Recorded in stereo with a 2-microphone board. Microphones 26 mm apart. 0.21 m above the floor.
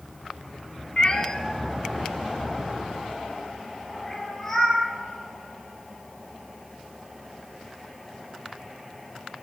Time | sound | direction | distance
1.0 | a cat meowing | 35° left (ahead or behind) | 0.9 m